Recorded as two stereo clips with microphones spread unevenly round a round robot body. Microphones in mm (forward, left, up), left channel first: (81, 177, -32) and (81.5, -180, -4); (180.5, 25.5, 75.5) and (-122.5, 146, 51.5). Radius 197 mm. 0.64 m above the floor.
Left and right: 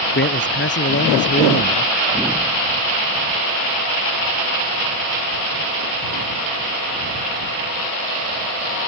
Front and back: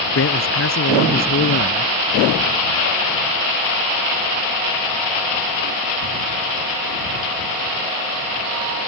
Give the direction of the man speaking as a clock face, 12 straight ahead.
11 o'clock.